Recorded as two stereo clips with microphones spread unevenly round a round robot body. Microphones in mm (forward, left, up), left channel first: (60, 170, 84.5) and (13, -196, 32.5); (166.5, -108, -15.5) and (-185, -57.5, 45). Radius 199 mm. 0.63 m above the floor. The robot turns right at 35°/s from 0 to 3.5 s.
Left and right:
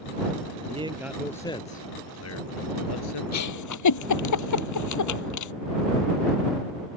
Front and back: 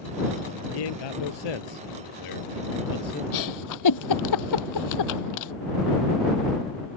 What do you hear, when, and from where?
0.7 s a man speaking: 25° right; by 3.2 s 65° left
3.3 s a giggle: 35° left; by 5.5 s 40° left